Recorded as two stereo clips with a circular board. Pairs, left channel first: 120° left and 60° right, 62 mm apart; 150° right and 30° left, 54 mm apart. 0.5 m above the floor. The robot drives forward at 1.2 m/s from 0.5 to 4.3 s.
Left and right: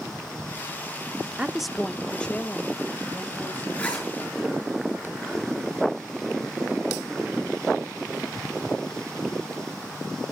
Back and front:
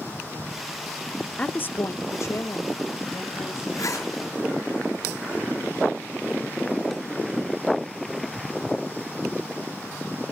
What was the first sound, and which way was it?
A woman speaking, 105° right.